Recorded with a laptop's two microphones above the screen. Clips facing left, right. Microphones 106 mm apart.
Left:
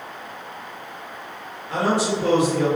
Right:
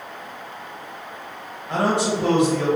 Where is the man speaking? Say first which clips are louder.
Right 1 dB; 70° right (ahead or behind), 1.1 m.